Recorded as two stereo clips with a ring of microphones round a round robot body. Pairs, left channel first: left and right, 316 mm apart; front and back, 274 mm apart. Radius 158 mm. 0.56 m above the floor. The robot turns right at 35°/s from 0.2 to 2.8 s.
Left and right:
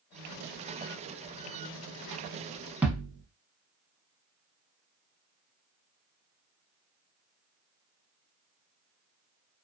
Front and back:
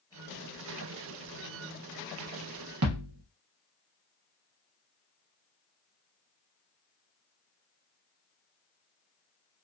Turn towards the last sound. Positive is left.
turn(degrees=-175)